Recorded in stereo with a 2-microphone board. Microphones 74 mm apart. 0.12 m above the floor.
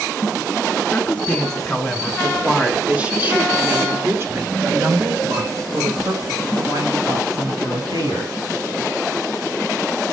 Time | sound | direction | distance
0.9 | a woman speaking | 20° left (ahead or behind) | 1.7 m